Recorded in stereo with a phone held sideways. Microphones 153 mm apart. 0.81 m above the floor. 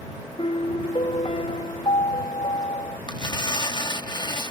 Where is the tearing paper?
30° left (ahead or behind).